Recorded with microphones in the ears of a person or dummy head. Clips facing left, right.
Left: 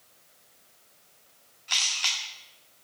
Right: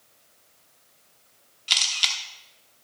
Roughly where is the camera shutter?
Right.